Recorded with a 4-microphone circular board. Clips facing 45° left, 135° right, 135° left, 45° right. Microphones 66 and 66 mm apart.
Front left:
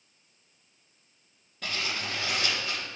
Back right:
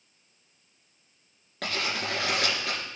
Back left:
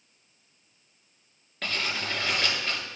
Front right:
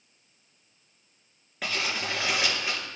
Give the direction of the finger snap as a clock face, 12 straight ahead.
No finger snap in this recording.